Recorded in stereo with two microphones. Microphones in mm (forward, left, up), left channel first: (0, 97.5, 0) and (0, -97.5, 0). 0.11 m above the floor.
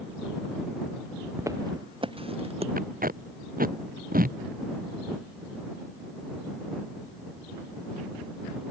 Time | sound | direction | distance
1.4 | footsteps | 15° right (ahead or behind) | ?
2.8 | tape being pulled | 50° right (ahead or behind) | ?